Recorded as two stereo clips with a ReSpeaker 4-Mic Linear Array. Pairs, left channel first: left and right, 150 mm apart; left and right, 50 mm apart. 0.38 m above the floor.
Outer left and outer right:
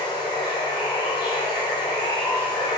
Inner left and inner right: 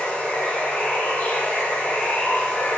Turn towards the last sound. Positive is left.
turn(degrees=30)  # may be behind; listen again after turning